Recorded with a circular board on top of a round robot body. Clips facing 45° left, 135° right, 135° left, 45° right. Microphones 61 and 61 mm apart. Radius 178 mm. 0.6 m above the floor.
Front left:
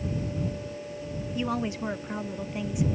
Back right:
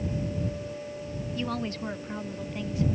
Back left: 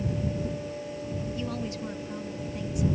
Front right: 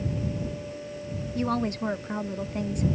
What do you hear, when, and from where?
1.4 s a woman speaking: 30° right